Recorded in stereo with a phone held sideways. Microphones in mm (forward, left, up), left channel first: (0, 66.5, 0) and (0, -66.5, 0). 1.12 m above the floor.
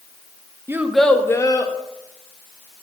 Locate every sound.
0.7 s a child speaking: 20° right (ahead or behind), 0.5 m; by 1.7 s 35° left (ahead or behind), 0.9 m